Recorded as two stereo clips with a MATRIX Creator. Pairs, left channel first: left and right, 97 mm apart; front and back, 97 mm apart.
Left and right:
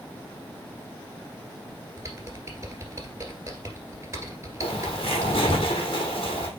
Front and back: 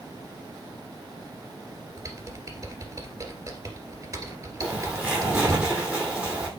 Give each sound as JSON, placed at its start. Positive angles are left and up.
{"t": 2.0, "sound": "typing on a keyboard", "azimuth_deg": -135, "distance_m": 1.9}
{"t": 4.6, "sound": "a bird", "azimuth_deg": 105, "distance_m": 2.0}